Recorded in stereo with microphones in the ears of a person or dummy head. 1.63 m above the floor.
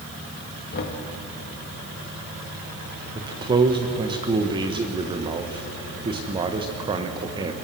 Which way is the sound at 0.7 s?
55° left (ahead or behind).